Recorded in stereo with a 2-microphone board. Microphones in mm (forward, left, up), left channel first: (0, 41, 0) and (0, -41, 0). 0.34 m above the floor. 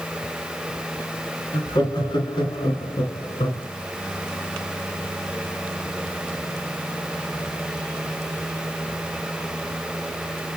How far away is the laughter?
About 3.5 m.